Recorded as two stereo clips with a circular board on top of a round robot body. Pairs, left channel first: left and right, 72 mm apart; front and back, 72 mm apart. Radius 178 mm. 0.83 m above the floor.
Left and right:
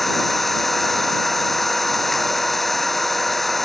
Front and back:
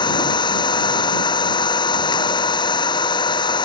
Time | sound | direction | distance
0.0 | an engine running | straight ahead | ?